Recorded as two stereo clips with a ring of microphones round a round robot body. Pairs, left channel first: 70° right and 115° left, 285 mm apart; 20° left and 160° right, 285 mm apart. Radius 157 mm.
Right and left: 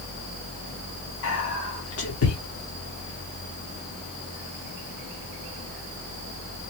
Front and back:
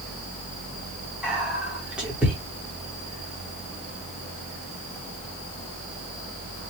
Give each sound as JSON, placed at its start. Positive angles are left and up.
{"t": 1.2, "sound": "whispering", "azimuth_deg": -70, "distance_m": 1.4}